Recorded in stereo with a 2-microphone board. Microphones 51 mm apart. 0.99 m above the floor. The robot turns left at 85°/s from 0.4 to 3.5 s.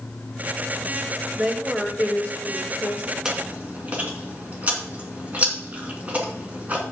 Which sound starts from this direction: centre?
Chewing, at 3.2 s.